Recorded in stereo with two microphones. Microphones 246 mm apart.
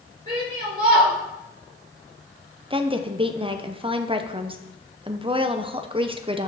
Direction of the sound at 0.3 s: 35° right (ahead or behind).